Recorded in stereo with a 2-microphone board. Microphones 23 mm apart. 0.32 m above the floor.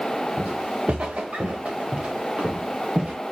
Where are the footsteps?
85° right, 2.5 m; by 3.1 s 50° right (ahead or behind), 2.5 m.